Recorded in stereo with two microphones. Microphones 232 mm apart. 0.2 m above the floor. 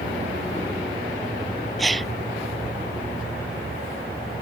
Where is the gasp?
Centre (ahead or behind).